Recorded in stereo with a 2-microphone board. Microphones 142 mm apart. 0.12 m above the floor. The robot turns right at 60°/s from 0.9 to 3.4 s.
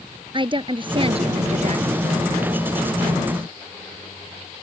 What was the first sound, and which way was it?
A woman speaking, 135° right.